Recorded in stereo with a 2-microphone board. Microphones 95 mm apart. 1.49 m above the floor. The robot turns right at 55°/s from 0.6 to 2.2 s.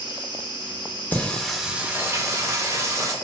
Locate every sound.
0.0 s an insect: 70° left, 0.8 m; by 3.2 s 155° left, 0.8 m
1.1 s singing: 20° left (ahead or behind), 0.5 m; by 3.1 s 30° right (ahead or behind), 0.5 m